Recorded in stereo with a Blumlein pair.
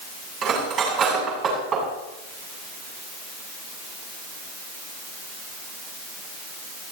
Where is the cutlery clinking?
30° right, 7.5 m.